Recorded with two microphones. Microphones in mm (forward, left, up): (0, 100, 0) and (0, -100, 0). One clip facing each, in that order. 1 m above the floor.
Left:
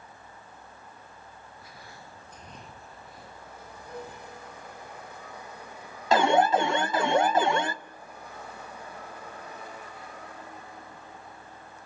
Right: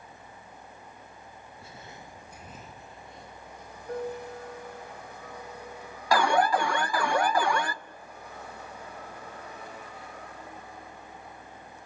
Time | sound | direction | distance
1.6 | footsteps | 30° right (ahead or behind) | 1.0 m
3.9 | a piano | 60° right (ahead or behind) | 4 m
6.1 | an alarm | 25° left (ahead or behind) | 0.7 m